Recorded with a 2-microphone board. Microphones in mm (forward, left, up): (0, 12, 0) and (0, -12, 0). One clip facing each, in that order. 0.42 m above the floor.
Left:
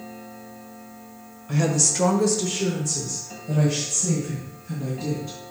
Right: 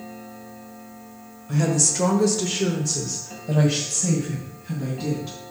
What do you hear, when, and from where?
1.5 s a woman speaking: 25° left (ahead or behind), 1.5 m; by 5.4 s 60° right (ahead or behind), 3.5 m